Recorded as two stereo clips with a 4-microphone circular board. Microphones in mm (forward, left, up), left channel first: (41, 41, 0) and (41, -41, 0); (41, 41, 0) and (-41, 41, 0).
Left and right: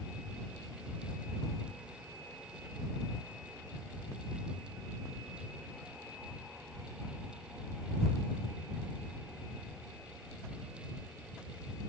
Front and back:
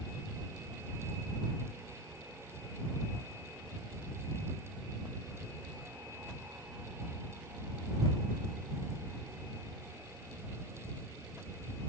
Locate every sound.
Only background noise.